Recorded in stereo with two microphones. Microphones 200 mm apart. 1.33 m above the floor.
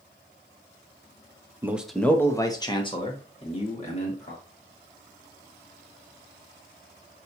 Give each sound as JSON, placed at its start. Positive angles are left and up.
{"t": 1.6, "sound": "a man speaking", "side_deg": -15, "distance_m": 0.6}